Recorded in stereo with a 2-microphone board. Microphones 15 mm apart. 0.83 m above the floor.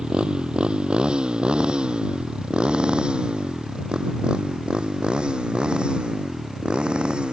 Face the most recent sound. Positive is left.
turn(degrees=-70)  # may be behind; listen again after turning